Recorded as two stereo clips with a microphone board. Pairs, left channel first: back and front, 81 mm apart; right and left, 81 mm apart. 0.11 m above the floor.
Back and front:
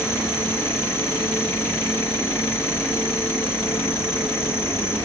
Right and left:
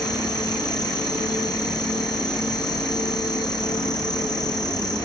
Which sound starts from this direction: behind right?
An insect, at 0.0 s.